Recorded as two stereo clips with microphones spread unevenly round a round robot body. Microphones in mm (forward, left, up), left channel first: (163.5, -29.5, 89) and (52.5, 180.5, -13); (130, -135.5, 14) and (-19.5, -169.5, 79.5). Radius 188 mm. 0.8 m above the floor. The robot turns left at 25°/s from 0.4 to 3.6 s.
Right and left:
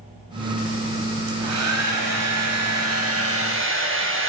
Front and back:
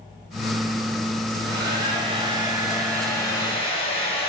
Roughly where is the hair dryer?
Behind left.